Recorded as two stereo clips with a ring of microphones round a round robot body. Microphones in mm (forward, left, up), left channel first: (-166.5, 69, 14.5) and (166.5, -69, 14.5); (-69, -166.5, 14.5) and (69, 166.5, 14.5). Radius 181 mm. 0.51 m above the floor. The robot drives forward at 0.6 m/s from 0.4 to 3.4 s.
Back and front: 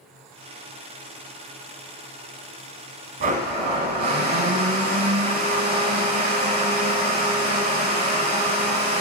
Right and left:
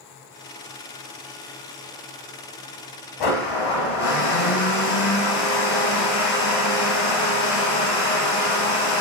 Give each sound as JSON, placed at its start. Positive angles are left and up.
{"t": 3.2, "sound": "a blender", "azimuth_deg": -90, "distance_m": 1.0}